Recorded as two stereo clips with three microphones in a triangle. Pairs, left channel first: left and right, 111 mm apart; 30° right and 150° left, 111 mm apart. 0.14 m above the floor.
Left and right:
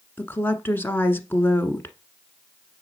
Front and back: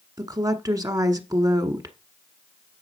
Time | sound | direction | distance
0.2 | a woman speaking | 145° left | 1.3 m